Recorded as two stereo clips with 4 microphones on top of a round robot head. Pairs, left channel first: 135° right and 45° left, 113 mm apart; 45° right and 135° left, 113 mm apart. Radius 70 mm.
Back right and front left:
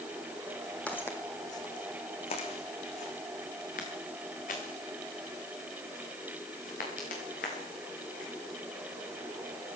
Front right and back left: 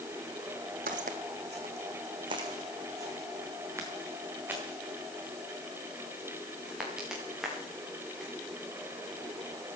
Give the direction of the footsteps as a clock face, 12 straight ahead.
7 o'clock.